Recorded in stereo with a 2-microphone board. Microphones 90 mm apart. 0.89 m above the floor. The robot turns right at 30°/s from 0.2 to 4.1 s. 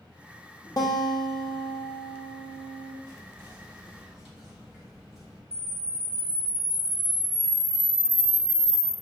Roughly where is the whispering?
Ahead right.